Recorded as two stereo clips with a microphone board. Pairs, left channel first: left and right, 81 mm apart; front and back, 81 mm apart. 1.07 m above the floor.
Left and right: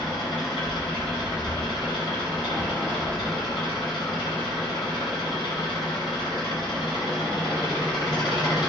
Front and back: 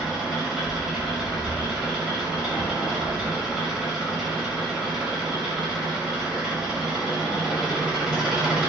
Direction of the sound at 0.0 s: 100° left.